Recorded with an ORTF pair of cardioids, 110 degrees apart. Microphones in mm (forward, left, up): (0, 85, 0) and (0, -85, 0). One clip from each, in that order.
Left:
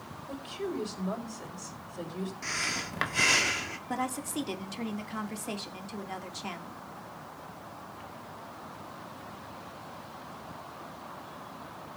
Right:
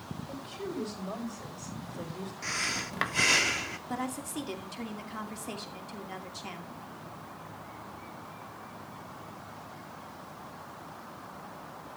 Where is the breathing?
Straight ahead, 1.2 m.